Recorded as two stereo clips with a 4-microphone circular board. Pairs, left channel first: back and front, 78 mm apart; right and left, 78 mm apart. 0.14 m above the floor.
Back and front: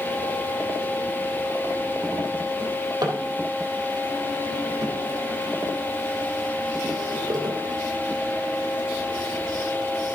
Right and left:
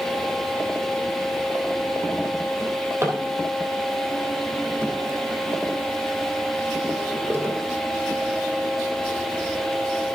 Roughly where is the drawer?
Ahead left.